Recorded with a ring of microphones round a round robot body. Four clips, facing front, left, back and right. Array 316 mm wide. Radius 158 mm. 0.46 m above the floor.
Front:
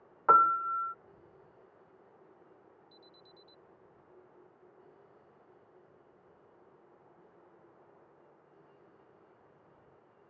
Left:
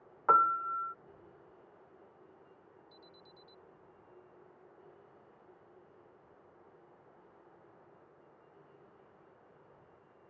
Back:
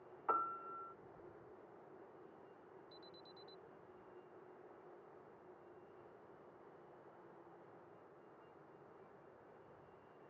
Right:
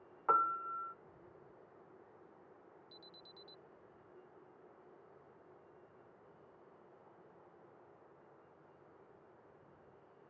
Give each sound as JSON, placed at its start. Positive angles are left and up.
{"t": 0.3, "sound": "a piano", "azimuth_deg": 20}
{"t": 2.9, "sound": "an alarm", "azimuth_deg": -90}